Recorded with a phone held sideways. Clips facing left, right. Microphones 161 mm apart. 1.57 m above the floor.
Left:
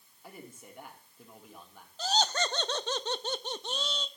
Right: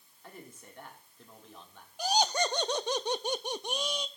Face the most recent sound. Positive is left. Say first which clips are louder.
# right 2 dB
turn(degrees=-10)  # may be behind; listen again after turning